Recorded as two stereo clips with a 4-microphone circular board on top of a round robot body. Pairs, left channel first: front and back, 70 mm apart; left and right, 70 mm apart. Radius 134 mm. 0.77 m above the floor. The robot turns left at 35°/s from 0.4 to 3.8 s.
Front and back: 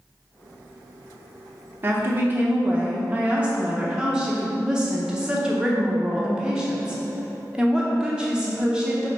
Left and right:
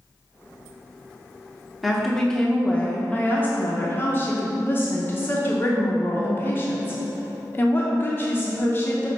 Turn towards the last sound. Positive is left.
turn(degrees=110)